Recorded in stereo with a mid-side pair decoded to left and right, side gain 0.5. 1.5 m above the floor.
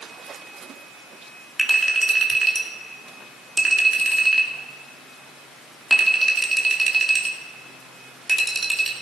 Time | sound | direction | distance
1.6 | a clink | 20° right | 2.5 m